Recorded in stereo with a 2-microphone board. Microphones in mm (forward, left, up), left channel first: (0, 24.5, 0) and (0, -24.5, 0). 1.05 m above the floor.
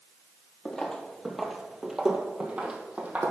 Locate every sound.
0.7 s footsteps: 15° left (ahead or behind), 1.3 m; by 3.3 s 30° right (ahead or behind), 1.7 m